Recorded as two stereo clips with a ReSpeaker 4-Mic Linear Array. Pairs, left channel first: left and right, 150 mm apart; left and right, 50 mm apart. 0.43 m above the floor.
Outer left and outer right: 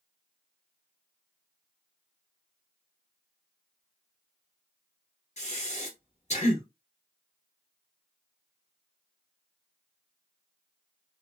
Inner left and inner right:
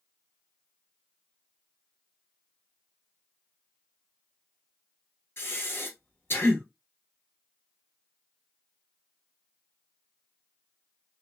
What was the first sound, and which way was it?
Breathing, 50° left (ahead or behind).